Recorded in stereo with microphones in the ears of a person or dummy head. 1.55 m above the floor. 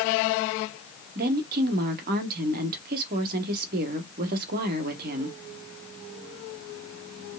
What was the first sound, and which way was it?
A woman speaking, 50° right (ahead or behind).